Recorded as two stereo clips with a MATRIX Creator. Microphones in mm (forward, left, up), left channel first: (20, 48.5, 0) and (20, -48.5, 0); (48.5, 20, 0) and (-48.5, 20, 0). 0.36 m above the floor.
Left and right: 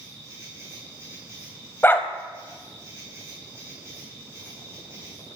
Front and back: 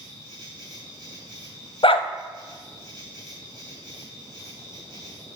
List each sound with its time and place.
0.0 s an insect: 145° right, 3.5 m
1.8 s a dog barking: 25° left, 0.5 m